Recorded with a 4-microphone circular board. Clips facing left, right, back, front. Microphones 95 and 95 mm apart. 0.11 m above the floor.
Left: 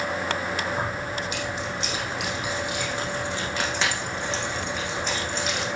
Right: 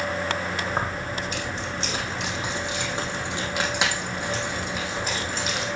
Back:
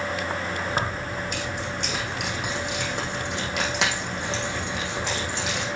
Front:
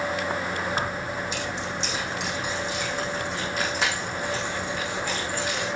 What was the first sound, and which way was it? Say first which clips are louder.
Keys jangling: even, even; 135° right.